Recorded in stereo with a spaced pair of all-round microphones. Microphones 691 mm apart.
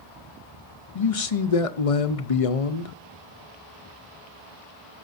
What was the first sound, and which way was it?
A man speaking, 55° left (ahead or behind).